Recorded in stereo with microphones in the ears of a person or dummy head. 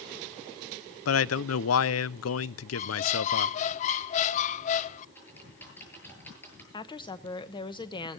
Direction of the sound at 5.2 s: 15° left (ahead or behind).